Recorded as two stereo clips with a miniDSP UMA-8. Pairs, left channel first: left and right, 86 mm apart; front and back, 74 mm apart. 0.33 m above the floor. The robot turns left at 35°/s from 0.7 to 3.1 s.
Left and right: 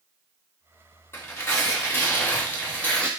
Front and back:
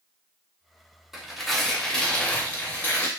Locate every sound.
1.1 s tearing paper: 100° left, 0.7 m; by 3.1 s 30° left, 0.7 m